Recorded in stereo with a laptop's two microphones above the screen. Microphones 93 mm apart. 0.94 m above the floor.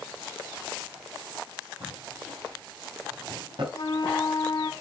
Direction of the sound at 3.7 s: 55° left (ahead or behind).